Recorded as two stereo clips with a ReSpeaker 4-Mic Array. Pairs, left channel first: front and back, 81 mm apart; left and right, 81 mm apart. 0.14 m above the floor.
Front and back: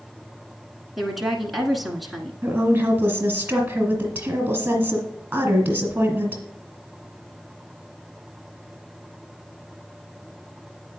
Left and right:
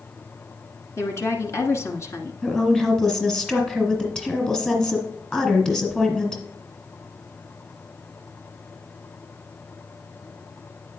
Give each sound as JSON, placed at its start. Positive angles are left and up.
{"t": 1.0, "sound": "a woman speaking", "azimuth_deg": 90, "distance_m": 1.3}
{"t": 2.4, "sound": "a woman speaking", "azimuth_deg": 155, "distance_m": 1.7}